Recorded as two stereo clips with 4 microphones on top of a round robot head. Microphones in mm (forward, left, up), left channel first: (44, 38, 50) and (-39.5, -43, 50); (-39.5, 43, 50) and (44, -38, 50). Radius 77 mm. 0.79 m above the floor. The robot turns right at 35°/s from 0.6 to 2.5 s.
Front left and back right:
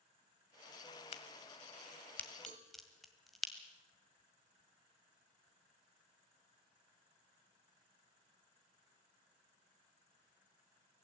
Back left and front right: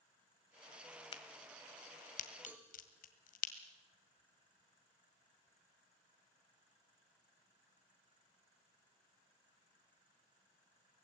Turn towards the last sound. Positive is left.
turn(degrees=-120)